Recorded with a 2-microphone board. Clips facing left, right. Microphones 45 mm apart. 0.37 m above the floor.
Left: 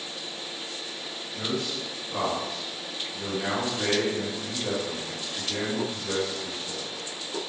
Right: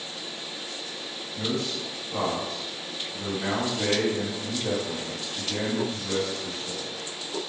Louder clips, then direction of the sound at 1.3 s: Right 1 dB; 25° left (ahead or behind).